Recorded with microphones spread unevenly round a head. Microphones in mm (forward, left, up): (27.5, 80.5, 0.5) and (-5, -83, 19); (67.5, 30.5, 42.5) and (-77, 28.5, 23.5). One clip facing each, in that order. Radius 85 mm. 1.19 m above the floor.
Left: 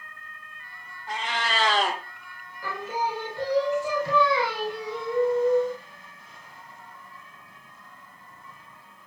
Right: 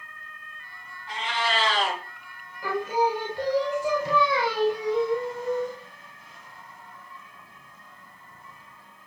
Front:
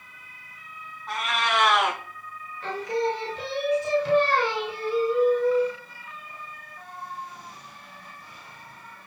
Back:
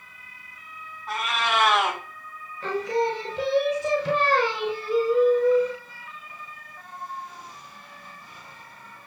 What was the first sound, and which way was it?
A cat meowing, 85° left.